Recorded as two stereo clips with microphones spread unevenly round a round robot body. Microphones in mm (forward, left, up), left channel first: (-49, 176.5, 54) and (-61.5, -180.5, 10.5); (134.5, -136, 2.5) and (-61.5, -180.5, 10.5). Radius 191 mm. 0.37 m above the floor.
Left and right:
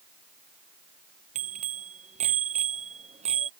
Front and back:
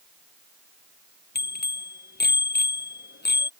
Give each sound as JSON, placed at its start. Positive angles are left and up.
{"t": 1.4, "sound": "a bicycle bell", "azimuth_deg": -20}